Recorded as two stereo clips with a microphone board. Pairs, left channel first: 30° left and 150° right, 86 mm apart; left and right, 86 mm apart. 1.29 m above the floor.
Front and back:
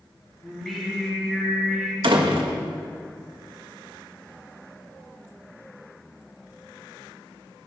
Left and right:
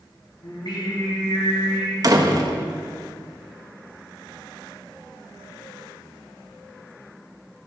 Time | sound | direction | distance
0.4 | singing | 120° left | 5 m
2.0 | a door slam | 135° right | 1.4 m